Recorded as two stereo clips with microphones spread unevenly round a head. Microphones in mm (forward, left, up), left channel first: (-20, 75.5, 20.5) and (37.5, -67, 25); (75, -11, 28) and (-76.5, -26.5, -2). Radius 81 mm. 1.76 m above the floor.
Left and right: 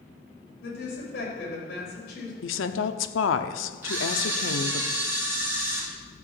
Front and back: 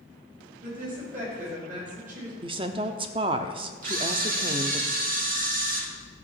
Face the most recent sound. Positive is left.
turn(degrees=-140)